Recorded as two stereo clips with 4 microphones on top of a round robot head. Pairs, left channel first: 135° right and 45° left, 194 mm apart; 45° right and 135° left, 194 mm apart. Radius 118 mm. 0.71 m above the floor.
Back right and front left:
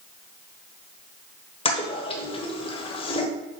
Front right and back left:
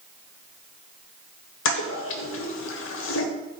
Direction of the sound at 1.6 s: 70° right.